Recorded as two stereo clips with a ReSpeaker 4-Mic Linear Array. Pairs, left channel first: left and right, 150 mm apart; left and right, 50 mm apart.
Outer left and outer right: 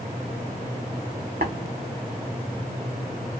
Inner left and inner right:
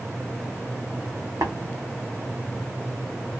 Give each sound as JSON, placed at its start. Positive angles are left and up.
{"t": 1.4, "sound": "tapping", "side_deg": -75, "distance_m": 1.1}